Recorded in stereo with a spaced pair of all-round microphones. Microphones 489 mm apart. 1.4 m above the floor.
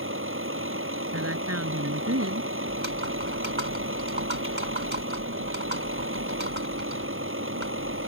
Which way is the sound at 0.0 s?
25° right (ahead or behind).